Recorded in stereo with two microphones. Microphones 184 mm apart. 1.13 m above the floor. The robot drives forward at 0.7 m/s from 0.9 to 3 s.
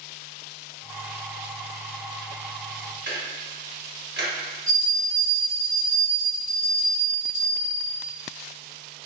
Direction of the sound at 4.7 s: 45° left (ahead or behind).